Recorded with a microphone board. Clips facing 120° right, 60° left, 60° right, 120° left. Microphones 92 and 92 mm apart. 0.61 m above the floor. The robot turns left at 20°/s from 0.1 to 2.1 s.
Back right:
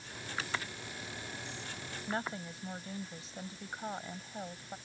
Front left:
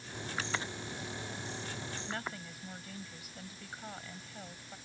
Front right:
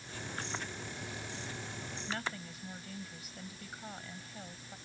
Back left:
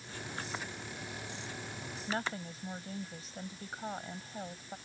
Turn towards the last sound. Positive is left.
turn(degrees=175)